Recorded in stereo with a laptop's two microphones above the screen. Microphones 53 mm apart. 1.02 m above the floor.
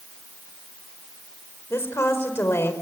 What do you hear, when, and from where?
1.7 s a woman speaking: 55° left (ahead or behind), 5 m